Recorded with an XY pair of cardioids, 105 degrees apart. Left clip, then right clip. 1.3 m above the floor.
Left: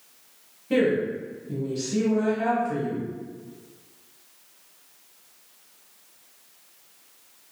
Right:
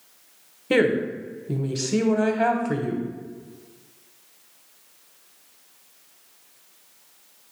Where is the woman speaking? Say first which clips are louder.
Right 2 dB; 65° right, 0.7 m.